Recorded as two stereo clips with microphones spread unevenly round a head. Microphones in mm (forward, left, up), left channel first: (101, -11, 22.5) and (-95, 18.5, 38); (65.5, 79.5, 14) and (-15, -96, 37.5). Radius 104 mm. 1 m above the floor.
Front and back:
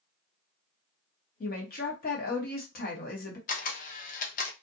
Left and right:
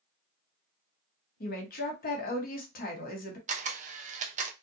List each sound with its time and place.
1.4 s a woman speaking: 30° left, 1.2 m
3.5 s a camera shutter: 60° right, 0.5 m